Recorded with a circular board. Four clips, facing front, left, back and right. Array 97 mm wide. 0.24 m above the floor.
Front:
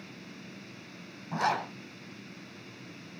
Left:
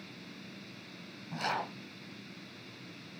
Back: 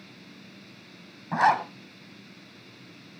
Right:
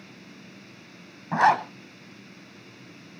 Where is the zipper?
115° right, 2 m.